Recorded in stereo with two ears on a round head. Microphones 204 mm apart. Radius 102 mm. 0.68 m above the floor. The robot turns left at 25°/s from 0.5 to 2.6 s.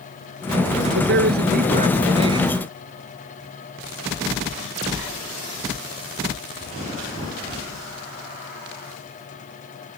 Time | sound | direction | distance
0.9 | a man speaking | 125° right | ?